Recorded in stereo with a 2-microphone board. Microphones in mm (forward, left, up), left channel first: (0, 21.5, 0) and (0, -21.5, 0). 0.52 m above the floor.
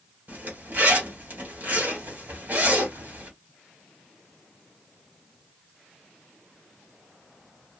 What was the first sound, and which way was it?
A zipper, 45° right (ahead or behind).